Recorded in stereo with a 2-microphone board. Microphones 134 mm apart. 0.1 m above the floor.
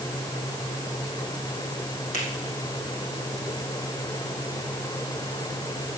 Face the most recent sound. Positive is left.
turn(degrees=75)  # may be behind; listen again after turning